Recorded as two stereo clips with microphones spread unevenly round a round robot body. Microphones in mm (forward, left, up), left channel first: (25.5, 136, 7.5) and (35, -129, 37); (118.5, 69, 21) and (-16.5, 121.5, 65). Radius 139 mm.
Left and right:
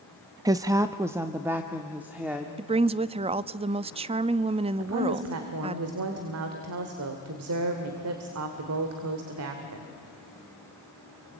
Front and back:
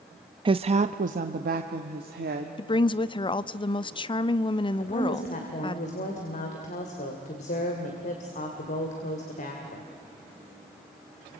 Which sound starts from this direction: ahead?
A woman speaking, at 2.6 s.